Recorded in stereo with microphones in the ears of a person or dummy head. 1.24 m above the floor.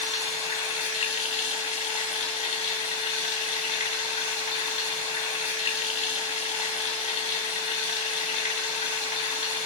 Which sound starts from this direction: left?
Running water, at 0.0 s.